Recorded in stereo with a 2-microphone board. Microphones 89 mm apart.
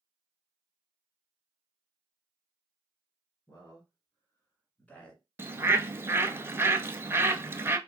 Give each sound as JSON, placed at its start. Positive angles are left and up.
{"t": 3.5, "sound": "a man speaking", "side_deg": 40, "distance_m": 1.7}
{"t": 5.4, "sound": "a bird", "side_deg": -25, "distance_m": 0.6}